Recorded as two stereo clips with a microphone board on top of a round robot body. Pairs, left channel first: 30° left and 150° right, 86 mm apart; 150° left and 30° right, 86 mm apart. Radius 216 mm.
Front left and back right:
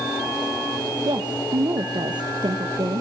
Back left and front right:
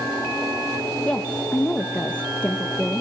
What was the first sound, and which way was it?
A woman speaking, 135° right.